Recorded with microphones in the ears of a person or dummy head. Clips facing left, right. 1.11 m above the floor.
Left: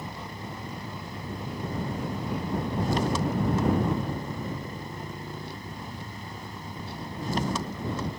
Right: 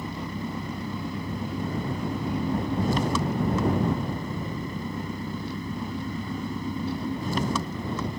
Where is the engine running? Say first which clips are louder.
Right 6 dB; 80° right.